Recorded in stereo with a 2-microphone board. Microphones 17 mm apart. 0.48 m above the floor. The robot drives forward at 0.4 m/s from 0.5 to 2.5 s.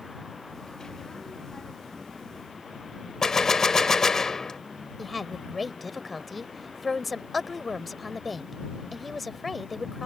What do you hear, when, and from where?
3.2 s a gunshot: 35° left (ahead or behind)
5.0 s a woman speaking: centre (ahead or behind)